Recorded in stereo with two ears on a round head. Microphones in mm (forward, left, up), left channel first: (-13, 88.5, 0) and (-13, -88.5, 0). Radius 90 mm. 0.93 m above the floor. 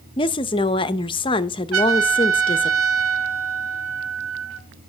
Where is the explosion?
I don't hear an explosion.